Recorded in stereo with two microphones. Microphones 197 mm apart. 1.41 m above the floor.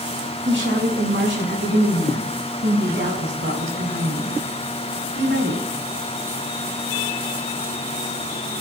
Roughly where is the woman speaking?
Right.